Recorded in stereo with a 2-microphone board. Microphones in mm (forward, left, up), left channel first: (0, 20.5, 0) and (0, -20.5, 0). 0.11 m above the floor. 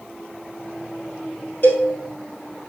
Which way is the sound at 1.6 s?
50° left (ahead or behind).